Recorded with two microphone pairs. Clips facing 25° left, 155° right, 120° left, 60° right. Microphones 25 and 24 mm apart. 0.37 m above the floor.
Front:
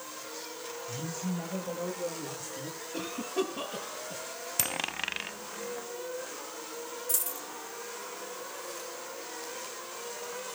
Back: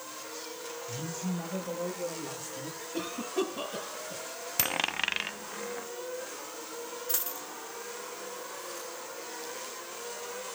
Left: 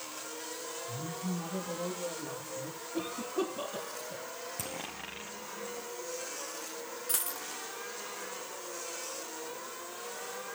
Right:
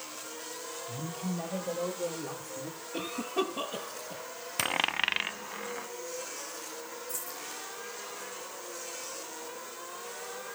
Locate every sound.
0.9 s a man speaking: 55° right, 9 m; by 2.8 s 45° right, 10.5 m
2.9 s a cough: 40° right, 9 m
4.6 s a dropped coin: 80° right, 0.7 m
7.1 s a dropped coin: 140° left, 1.1 m